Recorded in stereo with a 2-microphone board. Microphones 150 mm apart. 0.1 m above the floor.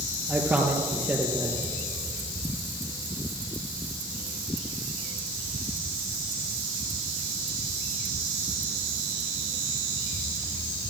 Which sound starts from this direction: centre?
A man speaking, at 0.3 s.